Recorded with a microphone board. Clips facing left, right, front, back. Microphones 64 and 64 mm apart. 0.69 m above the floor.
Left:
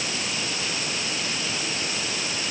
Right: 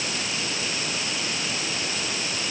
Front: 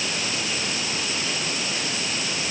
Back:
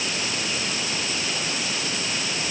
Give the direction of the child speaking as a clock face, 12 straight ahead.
No child speaking in this recording.